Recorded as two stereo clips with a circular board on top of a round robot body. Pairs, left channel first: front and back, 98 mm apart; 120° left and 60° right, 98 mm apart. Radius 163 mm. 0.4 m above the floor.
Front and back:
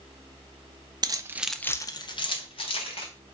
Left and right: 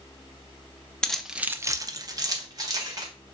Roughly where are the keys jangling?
Behind.